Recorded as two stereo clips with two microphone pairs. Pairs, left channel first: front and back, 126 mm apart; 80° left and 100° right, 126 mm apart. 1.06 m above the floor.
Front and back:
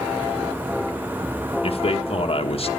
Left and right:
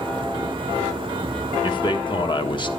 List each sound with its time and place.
1.6 s a man speaking: 35° left, 1.3 m